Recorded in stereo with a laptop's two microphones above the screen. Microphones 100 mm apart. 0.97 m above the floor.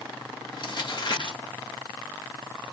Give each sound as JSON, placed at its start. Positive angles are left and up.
{"t": 0.5, "sound": "crumpling", "side_deg": 50, "distance_m": 1.8}